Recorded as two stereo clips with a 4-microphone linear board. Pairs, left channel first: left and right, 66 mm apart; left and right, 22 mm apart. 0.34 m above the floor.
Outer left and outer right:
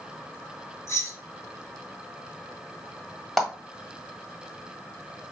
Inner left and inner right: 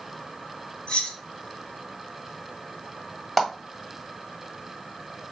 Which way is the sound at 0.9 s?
50° left (ahead or behind).